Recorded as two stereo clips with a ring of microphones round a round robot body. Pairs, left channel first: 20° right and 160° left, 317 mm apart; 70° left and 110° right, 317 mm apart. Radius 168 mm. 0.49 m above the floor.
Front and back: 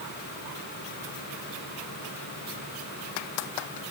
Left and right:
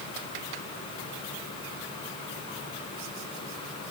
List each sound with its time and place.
Only background noise.